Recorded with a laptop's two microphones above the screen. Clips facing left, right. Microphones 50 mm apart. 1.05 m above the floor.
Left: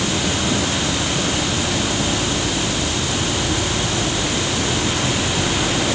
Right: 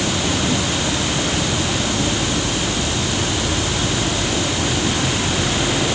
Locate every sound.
Only background noise.